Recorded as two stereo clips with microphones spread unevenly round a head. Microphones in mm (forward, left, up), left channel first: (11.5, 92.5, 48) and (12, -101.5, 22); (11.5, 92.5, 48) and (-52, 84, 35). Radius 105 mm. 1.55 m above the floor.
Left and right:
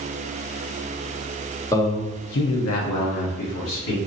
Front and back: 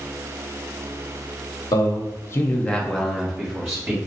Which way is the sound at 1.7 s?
15° left.